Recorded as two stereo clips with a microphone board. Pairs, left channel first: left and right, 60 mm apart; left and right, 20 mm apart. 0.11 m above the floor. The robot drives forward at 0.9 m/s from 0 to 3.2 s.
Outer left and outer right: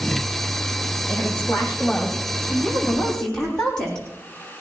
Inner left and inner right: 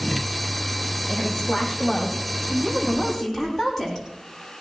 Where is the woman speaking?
20° left (ahead or behind), 4.5 m; by 4.0 s 15° left (ahead or behind), 6.5 m.